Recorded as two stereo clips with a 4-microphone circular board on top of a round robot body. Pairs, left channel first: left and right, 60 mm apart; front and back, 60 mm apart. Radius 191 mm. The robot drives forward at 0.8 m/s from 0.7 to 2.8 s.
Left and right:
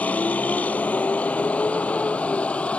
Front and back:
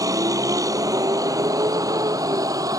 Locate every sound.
0.0 s a vehicle: 155° left; by 2.8 s 160° left